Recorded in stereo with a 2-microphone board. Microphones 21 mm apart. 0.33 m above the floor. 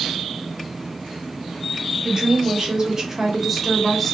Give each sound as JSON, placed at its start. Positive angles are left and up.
{"t": 2.0, "sound": "a woman speaking", "side_deg": -45, "distance_m": 1.6}